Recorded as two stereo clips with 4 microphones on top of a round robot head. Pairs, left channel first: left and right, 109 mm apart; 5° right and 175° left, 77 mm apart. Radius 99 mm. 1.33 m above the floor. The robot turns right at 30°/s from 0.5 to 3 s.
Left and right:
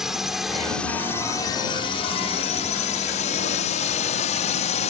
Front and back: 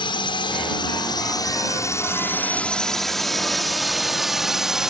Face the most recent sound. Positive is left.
turn(degrees=95)